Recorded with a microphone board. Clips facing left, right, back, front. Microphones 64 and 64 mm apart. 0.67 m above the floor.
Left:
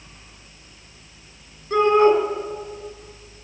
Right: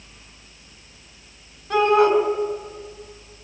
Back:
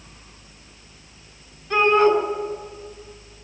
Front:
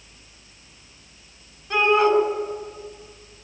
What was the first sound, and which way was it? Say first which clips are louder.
A shout: left 1 dB, back 2 dB; 85° right.